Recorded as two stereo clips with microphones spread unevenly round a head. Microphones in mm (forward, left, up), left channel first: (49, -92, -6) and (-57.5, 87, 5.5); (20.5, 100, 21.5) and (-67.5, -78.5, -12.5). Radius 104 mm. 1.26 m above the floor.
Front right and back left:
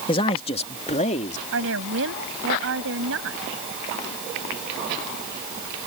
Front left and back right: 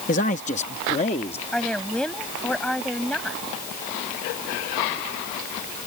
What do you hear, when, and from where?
0.1 s a man speaking: 10° left; by 1.4 s straight ahead
1.5 s a woman speaking: 150° left